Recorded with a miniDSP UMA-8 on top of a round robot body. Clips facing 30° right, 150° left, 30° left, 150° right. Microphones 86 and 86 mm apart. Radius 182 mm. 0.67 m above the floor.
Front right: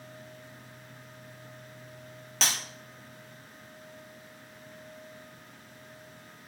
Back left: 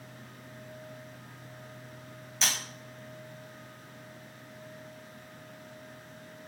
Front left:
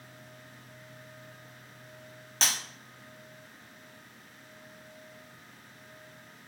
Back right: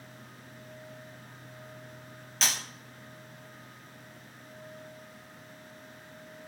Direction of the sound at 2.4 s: 20° right.